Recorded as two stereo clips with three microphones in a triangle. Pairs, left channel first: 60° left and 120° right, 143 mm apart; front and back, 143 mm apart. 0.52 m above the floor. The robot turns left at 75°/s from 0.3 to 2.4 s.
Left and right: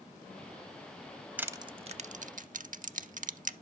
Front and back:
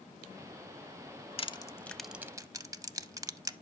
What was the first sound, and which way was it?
Crushing, 40° right.